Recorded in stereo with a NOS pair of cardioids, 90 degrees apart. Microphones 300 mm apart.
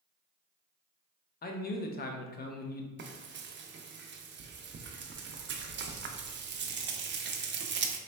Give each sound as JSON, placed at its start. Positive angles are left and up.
{"t": 1.4, "sound": "a man speaking", "azimuth_deg": 30, "distance_m": 0.7}
{"t": 3.0, "sound": "frying", "azimuth_deg": -40, "distance_m": 0.5}